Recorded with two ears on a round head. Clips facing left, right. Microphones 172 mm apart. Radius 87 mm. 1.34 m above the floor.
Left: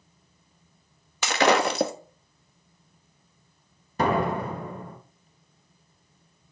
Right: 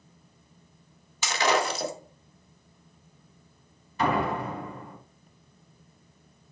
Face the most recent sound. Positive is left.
turn(degrees=40)  # may be behind; listen again after turning